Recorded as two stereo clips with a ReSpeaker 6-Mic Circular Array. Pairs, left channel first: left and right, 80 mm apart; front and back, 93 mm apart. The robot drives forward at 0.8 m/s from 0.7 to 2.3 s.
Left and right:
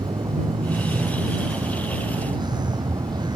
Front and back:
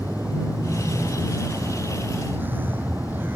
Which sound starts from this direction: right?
A vehicle, at 0.0 s.